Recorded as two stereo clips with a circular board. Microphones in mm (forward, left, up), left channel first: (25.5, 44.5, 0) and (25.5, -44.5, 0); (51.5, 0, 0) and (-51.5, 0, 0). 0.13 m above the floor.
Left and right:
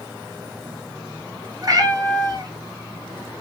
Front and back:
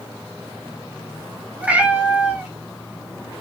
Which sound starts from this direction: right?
A cat meowing, at 1.6 s.